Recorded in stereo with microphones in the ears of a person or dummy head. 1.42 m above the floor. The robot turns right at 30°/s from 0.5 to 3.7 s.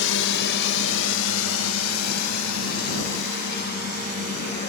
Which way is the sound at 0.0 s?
70° left (ahead or behind).